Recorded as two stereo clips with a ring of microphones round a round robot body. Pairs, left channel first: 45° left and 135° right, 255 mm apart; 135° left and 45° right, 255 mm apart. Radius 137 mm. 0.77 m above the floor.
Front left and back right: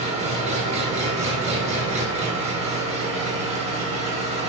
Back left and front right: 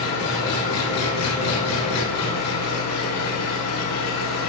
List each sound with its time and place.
0.0 s an engine running: 160° left, 1.3 m